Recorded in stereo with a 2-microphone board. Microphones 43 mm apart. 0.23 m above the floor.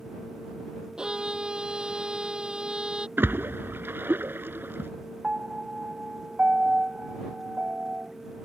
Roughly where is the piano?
Right.